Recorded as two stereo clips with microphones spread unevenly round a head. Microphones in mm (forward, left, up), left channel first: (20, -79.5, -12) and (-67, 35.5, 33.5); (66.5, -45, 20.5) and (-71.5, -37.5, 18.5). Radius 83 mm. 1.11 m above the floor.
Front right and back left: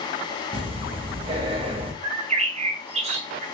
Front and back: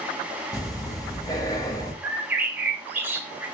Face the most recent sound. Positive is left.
turn(degrees=125)